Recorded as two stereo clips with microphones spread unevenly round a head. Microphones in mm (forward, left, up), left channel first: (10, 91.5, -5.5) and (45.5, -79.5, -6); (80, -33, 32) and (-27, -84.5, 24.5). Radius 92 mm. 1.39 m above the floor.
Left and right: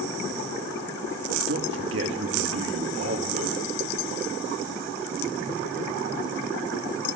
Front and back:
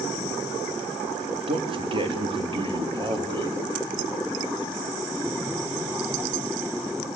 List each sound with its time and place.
1.5 s a man speaking: 110° right, 2.5 m